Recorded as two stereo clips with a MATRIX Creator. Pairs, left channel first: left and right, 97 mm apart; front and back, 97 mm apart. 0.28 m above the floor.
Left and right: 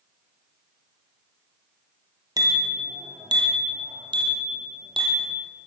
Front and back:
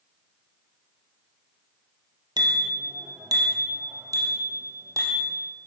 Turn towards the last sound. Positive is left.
turn(degrees=-120)